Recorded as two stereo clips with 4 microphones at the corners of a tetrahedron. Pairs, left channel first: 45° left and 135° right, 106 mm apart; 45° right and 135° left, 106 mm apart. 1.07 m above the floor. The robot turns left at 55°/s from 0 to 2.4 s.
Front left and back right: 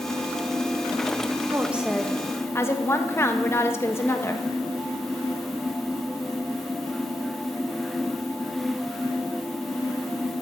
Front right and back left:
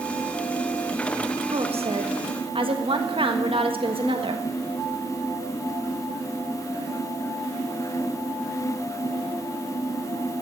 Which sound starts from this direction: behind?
A woman speaking, at 1.5 s.